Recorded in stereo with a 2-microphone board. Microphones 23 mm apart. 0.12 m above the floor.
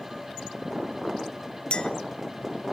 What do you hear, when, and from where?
1.7 s a clink: 45° left (ahead or behind), 1.0 m